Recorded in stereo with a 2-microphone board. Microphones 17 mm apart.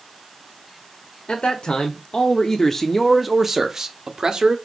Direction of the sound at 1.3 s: 60° left (ahead or behind).